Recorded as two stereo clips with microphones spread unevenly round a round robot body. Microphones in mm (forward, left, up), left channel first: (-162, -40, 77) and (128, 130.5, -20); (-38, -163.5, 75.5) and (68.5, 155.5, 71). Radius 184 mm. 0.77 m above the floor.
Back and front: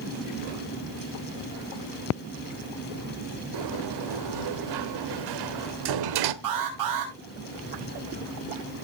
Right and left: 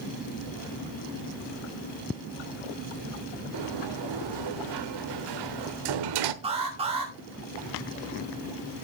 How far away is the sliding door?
About 1.1 m.